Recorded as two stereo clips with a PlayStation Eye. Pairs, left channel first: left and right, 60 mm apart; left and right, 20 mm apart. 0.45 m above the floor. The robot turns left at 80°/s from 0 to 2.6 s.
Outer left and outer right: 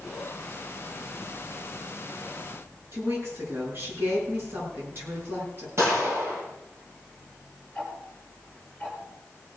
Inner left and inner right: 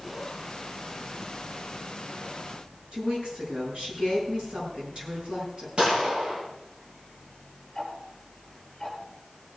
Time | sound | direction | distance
2.9 | a woman speaking | 40° right (ahead or behind) | 6.5 m
5.8 | a gunshot | 50° right (ahead or behind) | 5.5 m
7.8 | ticking | 5° left (ahead or behind) | 5 m